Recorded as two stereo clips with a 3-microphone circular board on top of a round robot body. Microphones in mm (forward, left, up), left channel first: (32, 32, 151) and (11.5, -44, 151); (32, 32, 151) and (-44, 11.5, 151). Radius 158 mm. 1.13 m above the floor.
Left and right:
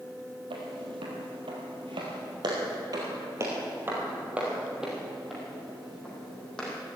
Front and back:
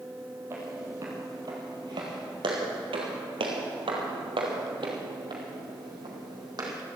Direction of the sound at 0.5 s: 100° right.